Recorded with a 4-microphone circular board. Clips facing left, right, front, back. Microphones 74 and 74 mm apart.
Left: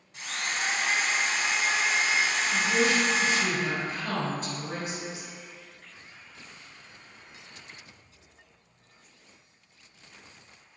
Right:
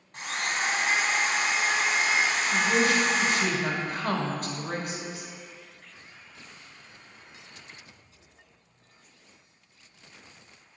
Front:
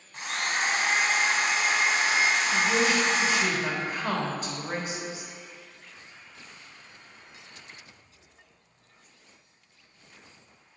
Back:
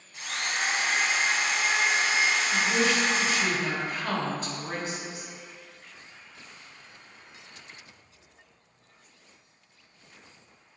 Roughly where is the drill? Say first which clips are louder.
Right 3 dB, front 2 dB; ahead right.